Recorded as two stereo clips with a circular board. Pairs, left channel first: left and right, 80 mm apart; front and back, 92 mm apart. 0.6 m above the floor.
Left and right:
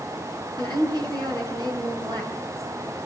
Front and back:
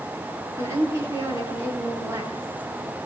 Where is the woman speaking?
120° right, 8 m.